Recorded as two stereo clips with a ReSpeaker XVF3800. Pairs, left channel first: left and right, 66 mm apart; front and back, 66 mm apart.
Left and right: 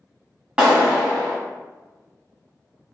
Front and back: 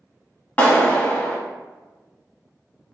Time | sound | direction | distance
0.6 | a clap | 30° right | 1.3 m